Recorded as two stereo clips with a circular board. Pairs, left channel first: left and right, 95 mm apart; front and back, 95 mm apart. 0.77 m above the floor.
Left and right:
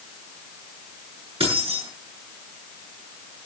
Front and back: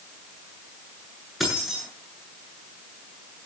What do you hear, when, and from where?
1.4 s keys jangling: 90° right, 8.5 m